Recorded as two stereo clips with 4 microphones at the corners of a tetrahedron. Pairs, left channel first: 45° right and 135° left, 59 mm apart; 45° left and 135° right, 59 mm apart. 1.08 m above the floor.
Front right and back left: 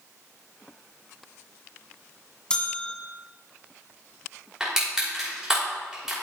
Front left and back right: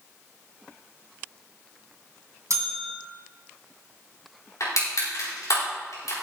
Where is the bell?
115° right, 2 m.